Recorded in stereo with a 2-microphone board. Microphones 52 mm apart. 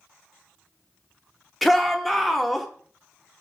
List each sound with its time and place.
1.6 s a shout: centre (ahead or behind), 0.6 m